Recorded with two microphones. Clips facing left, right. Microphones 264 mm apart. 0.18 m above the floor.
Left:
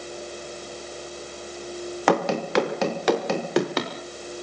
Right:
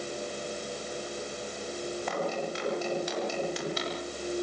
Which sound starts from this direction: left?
Running footsteps, at 2.1 s.